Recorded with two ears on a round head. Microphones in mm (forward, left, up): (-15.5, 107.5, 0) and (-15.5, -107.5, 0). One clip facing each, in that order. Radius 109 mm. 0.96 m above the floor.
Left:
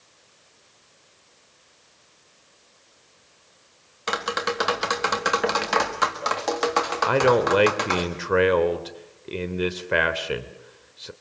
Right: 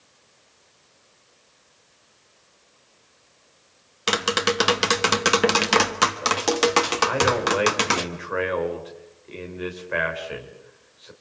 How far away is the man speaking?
About 3 m.